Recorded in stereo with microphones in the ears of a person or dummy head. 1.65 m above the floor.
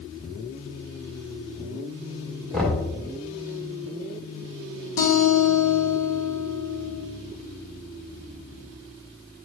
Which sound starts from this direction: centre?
Knocking, at 2.5 s.